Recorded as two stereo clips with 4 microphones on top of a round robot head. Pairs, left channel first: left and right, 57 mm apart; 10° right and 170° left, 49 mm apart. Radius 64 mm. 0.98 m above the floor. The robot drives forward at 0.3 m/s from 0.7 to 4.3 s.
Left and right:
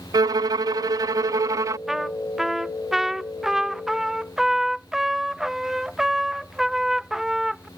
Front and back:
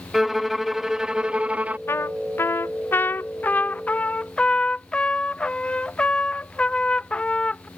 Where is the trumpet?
5° right; by 7.7 s 20° right.